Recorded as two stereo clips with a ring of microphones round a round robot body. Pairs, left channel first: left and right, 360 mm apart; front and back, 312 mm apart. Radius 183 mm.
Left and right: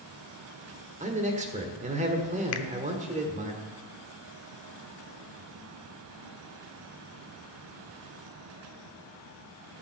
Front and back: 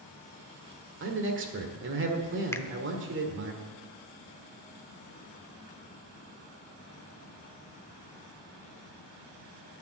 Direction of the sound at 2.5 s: 80° left.